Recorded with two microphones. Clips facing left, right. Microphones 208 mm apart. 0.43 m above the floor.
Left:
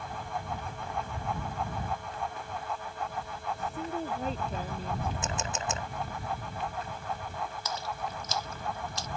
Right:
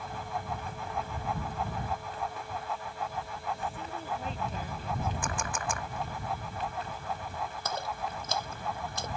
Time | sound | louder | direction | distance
3.6 | a woman speaking | left 4 dB | 40° left (ahead or behind) | ?
5.2 | a camera shutter | left 1 dB | 25° left (ahead or behind) | ?
7.7 | a splash | right 1 dB | 55° right (ahead or behind) | ?